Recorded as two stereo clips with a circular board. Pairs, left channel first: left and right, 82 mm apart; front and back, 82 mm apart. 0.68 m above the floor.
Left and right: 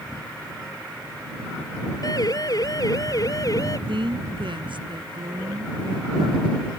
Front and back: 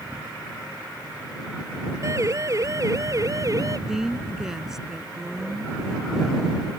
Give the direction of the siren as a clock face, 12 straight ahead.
8 o'clock.